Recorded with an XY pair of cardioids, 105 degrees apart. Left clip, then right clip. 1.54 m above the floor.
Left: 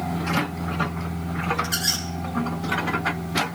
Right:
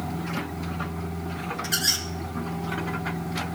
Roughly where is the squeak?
Ahead.